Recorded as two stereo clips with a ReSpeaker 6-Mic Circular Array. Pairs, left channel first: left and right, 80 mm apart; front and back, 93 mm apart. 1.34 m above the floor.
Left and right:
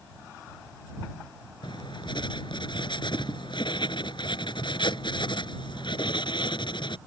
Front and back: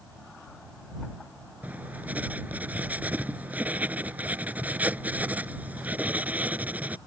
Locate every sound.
1.6 s writing: 105° left